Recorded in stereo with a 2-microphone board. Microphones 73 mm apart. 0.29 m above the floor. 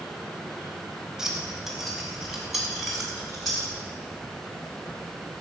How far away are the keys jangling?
About 1.3 m.